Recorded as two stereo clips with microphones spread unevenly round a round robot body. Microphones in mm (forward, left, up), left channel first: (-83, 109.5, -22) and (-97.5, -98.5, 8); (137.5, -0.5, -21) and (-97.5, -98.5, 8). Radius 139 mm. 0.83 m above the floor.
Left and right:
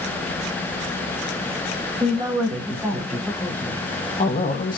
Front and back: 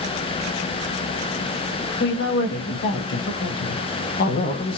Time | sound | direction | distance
2.0 | a woman speaking | 15° right | 2 m